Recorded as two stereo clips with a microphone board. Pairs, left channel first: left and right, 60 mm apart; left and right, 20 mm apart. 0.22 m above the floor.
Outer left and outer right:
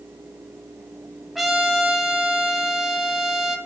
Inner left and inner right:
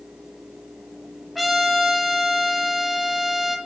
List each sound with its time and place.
1.4 s a trumpet: centre (ahead or behind), 1.1 m